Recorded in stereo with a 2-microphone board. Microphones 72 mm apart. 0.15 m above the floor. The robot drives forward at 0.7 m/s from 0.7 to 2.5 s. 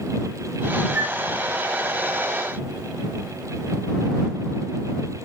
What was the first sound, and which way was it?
A flute, 40° right (ahead or behind).